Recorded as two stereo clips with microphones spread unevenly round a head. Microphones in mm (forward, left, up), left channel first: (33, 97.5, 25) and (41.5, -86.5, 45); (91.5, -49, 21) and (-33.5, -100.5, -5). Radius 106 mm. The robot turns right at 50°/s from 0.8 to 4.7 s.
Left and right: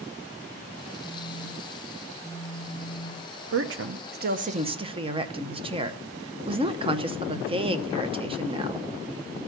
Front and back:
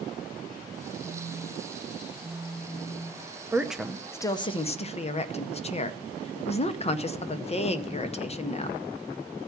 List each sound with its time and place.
1.0 s a phone buzzing: 175° left, 5 m; by 3.3 s 70° right, 5 m
3.5 s a woman speaking: 85° right, 0.8 m; by 8.8 s 25° right, 0.8 m